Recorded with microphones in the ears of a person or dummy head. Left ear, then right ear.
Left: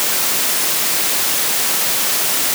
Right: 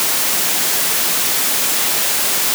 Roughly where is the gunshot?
I don't hear a gunshot.